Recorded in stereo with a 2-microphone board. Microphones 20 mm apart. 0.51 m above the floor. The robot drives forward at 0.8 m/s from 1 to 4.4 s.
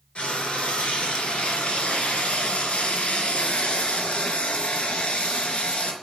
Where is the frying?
65° left (ahead or behind), 4 m; by 5.9 s 75° left (ahead or behind), 4 m.